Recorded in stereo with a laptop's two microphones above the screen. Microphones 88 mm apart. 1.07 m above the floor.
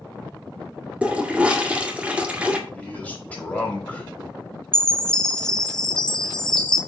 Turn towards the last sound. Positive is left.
turn(degrees=10)  # may be behind; listen again after turning